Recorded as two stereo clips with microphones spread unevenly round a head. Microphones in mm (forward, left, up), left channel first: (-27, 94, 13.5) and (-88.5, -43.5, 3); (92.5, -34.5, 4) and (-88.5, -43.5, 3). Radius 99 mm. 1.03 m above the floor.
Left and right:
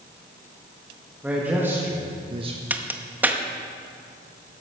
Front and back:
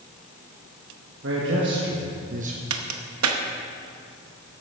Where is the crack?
165° left, 0.9 m.